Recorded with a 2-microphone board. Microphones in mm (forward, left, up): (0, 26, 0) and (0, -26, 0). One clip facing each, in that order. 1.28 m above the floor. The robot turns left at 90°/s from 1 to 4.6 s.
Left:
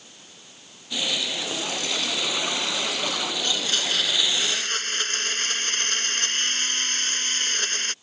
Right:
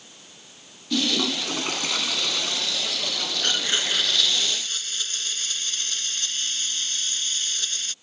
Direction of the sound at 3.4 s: 125° right.